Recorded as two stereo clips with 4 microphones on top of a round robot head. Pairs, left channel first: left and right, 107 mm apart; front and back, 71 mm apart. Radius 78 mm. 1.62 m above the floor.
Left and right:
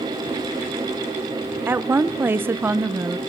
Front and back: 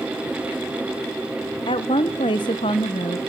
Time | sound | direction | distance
1.7 | a woman speaking | 20° right | 1.1 m